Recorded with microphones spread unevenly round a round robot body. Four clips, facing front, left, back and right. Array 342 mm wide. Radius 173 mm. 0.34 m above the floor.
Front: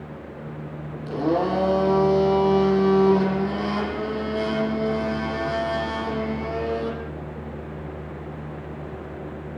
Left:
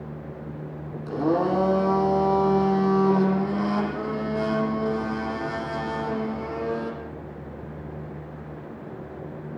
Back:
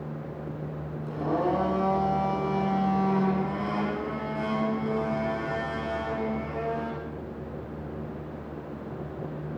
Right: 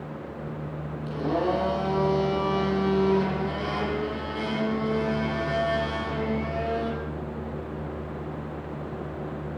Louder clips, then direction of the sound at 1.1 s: Left 3 dB, front 5 dB; 55° left.